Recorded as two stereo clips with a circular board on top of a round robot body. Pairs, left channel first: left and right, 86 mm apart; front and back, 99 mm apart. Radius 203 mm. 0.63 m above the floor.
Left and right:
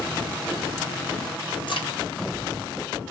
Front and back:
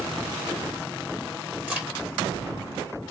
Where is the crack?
110° left, 2.5 m.